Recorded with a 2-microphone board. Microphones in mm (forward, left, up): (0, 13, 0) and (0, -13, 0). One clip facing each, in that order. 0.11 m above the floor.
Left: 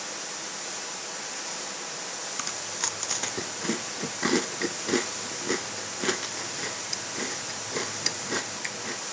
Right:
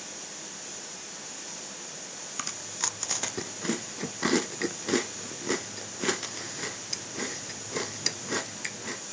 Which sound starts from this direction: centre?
Chewing, at 2.4 s.